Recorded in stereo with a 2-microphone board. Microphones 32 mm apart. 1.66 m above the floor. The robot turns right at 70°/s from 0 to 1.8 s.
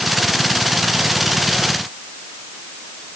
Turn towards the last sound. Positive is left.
No sound to turn to.